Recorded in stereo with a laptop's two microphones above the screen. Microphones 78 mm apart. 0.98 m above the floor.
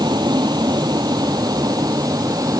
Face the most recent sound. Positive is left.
turn(degrees=-50)  # may be behind; listen again after turning